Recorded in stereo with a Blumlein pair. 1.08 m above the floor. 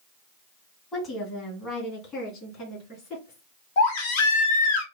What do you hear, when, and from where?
0.9 s a woman speaking: 20° left, 1.6 m; by 3.4 s 30° left, 3 m
3.8 s a baby crying: 50° left, 0.9 m